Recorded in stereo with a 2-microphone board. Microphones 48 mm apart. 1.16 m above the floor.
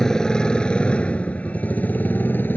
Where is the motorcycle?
10° left (ahead or behind); by 2.6 s 40° left (ahead or behind).